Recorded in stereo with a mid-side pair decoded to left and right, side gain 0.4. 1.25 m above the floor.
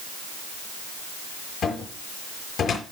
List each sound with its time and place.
1.6 s a cupboard door: 65° left, 7 m